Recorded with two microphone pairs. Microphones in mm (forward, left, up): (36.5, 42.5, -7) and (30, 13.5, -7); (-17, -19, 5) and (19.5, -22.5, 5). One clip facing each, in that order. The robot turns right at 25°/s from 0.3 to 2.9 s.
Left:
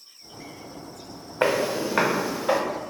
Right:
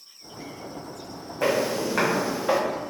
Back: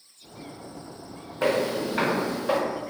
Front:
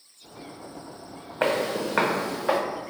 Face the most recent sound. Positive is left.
turn(degrees=-5)